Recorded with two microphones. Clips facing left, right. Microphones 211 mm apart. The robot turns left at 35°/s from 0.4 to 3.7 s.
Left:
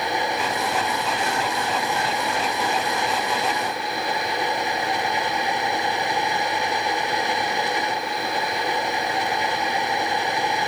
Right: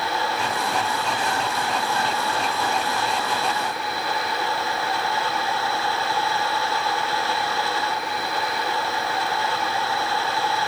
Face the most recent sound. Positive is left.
No sound to turn to.